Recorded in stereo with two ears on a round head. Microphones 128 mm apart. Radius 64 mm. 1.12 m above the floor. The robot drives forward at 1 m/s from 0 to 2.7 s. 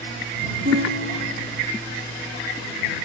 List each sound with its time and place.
0.7 s a guitar: 80° right, 7 m; by 1.6 s 85° right, 7 m